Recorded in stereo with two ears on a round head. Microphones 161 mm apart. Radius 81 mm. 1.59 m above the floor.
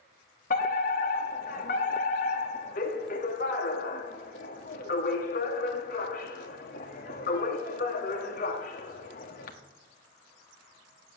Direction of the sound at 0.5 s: 45° left (ahead or behind).